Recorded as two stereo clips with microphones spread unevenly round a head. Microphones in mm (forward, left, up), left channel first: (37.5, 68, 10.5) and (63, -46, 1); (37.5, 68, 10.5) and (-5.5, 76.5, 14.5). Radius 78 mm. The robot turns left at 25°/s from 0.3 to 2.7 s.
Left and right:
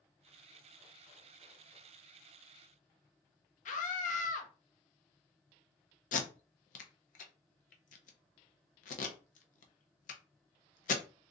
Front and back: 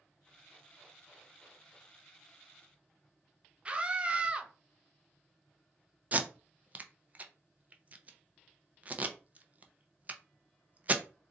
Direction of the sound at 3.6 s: 100° left.